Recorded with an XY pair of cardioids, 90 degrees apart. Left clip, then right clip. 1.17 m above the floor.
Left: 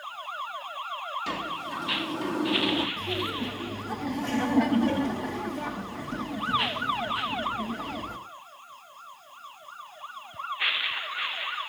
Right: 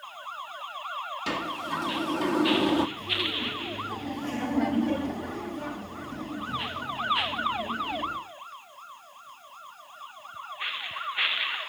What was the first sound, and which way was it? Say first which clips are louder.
A sliding door: right 1 dB; 35° right.